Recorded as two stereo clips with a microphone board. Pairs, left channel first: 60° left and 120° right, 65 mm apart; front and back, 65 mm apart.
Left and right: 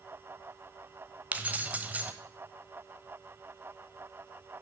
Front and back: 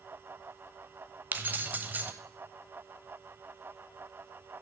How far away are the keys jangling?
About 0.8 m.